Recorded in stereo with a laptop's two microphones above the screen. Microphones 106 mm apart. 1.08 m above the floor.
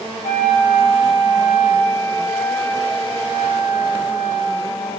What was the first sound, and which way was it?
A flute, 75° right (ahead or behind).